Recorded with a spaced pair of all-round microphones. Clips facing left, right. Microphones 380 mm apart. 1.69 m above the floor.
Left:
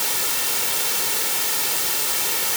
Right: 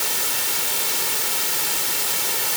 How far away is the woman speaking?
I don't hear a woman speaking.